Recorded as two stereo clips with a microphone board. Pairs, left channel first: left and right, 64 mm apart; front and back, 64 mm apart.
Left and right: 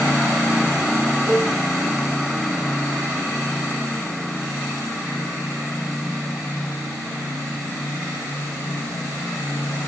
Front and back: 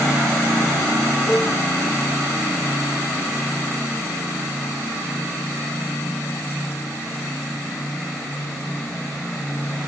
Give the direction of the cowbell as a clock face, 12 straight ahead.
2 o'clock.